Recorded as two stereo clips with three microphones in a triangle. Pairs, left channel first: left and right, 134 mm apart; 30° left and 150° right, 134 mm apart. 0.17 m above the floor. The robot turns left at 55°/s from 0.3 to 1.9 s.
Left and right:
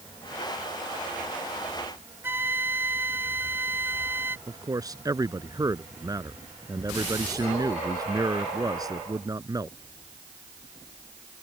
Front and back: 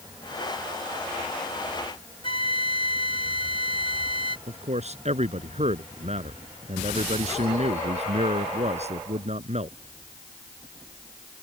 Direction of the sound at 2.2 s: 15° right.